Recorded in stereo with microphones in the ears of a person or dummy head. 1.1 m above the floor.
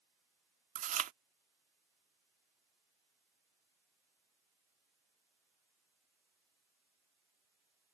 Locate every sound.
0.8 s chewing: 45° right (ahead or behind)